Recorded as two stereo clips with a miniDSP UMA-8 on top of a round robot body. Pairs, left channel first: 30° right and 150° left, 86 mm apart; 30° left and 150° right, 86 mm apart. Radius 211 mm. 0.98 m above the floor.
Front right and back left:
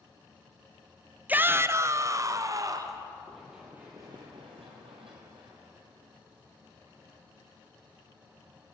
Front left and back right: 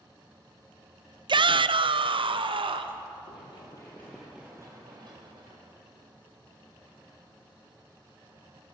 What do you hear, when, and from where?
1.3 s a shout: 140° right, 0.5 m; by 3.0 s 160° right, 1.4 m
3.3 s running footsteps: 55° left, 1.7 m; by 7.1 s 170° right, 4 m